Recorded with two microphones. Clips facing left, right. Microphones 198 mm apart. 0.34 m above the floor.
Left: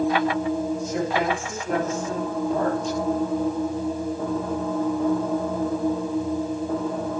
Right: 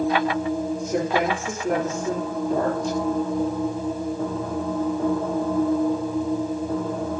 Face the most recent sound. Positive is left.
turn(degrees=-65)  # may be behind; listen again after turning